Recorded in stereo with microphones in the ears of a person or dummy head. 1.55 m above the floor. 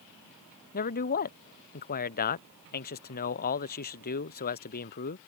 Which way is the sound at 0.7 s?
45° left (ahead or behind).